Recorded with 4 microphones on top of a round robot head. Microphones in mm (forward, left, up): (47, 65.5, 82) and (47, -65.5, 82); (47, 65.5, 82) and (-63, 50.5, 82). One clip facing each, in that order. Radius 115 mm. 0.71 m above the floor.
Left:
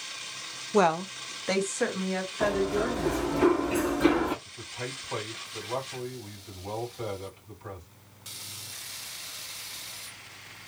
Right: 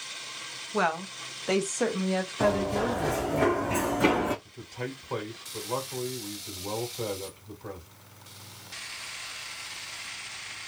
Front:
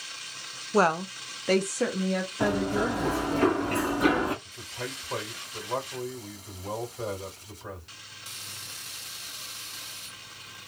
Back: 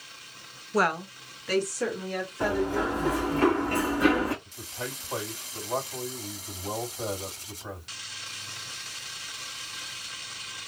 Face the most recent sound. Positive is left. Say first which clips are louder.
# right 2 dB, even
turn(degrees=-45)